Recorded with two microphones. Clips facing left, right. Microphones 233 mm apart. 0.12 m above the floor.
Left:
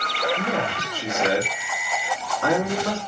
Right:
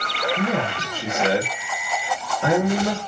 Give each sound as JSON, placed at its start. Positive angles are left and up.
{"t": 0.4, "sound": "a man speaking", "side_deg": -20, "distance_m": 1.1}